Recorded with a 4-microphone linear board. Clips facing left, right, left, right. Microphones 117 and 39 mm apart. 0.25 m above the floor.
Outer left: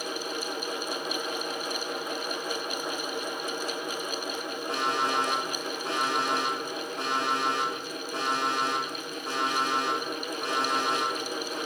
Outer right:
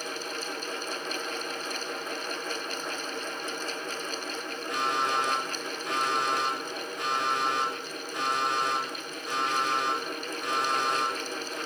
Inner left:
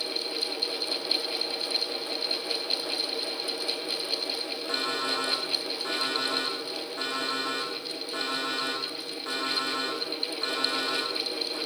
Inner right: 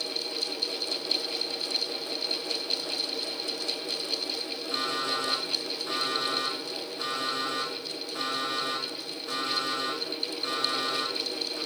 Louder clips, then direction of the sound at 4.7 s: Even, even; 75° left (ahead or behind).